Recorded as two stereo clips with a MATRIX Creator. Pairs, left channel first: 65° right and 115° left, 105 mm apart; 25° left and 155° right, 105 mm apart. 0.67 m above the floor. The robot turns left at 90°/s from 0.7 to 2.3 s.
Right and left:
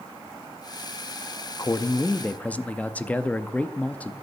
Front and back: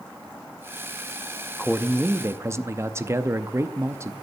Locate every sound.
1.6 s a man speaking: 65° right, 0.6 m; by 4.1 s 130° right, 0.6 m